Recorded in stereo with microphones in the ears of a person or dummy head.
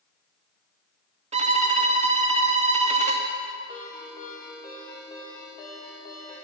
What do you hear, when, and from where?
1.3 s a violin: 35° right (ahead or behind), 0.7 m
3.7 s a ringtone: 30° left (ahead or behind), 3.5 m